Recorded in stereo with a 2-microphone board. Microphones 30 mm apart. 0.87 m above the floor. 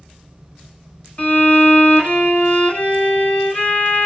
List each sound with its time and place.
1.2 s a violin: 50° left (ahead or behind), 1.2 m